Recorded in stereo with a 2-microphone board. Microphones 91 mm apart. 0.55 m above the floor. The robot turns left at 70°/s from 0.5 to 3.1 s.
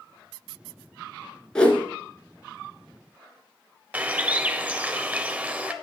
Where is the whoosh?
10° left (ahead or behind), 1.3 m; by 1.9 s 30° left (ahead or behind), 1.3 m.